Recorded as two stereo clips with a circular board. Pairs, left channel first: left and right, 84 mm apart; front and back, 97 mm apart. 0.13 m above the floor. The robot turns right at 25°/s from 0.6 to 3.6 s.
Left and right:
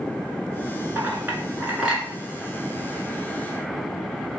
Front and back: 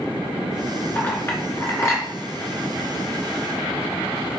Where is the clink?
45° right, 1.1 m; by 2.0 s 20° right, 1.1 m.